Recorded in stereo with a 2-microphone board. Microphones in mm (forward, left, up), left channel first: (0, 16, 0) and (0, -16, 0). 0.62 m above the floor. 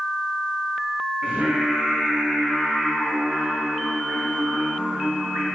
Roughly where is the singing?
Right.